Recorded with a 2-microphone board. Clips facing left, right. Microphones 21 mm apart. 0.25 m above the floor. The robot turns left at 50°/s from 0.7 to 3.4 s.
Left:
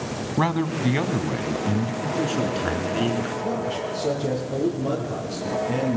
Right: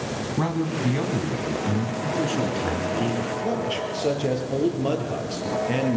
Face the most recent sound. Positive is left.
turn(degrees=-55)  # may be behind; listen again after turning